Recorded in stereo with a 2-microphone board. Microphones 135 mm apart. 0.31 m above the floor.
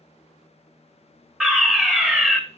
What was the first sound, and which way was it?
A fire alarm, 5° right (ahead or behind).